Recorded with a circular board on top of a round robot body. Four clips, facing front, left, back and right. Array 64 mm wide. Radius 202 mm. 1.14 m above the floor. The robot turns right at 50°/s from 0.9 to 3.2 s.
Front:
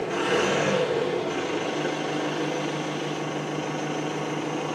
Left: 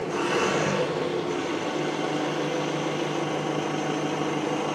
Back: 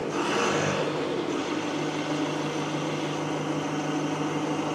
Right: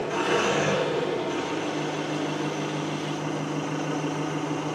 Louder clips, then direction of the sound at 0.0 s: Right 1 dB, front 2 dB; 45° right.